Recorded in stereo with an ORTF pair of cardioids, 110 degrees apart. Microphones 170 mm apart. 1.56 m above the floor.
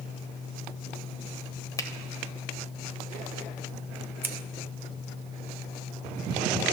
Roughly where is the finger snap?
Ahead.